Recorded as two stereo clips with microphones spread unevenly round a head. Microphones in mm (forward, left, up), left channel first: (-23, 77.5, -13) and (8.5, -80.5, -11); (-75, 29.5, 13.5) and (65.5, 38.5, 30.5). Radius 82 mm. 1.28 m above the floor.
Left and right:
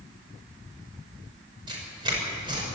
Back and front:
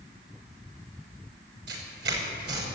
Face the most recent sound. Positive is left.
turn(degrees=-15)